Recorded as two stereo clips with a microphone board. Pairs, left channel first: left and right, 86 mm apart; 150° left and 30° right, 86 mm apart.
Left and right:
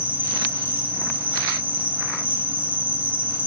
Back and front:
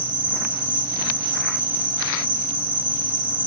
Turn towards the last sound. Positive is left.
turn(degrees=-60)